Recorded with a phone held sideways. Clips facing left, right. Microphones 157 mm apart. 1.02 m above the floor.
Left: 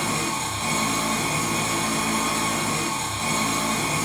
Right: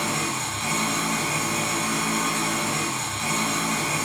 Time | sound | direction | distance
0.0 | an engine running | 30° left (ahead or behind) | 1.2 m